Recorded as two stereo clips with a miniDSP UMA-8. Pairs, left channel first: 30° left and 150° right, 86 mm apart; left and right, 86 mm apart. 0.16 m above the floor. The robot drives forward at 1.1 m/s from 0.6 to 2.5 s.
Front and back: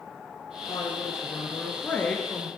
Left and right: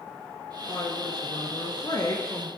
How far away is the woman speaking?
About 2.5 m.